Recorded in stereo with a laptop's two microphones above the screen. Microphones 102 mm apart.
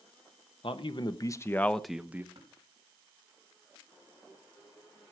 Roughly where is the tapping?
Right.